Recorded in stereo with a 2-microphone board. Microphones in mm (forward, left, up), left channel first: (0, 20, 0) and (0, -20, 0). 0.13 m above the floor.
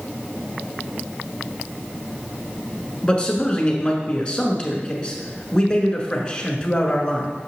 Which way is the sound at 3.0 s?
20° left (ahead or behind).